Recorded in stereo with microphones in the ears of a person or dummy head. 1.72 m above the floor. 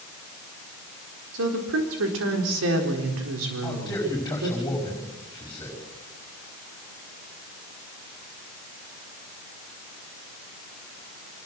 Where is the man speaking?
15° left (ahead or behind), 5 m.